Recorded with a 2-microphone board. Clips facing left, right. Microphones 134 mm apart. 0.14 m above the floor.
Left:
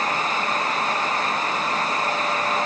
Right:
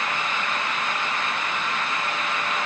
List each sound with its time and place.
Only background noise.